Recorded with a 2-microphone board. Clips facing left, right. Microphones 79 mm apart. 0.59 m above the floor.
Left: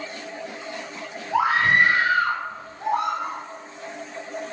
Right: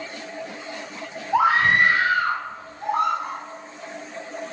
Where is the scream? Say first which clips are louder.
Right 1 dB; 5° left (ahead or behind), 1.0 m; by 3.4 s 60° left (ahead or behind), 1.7 m.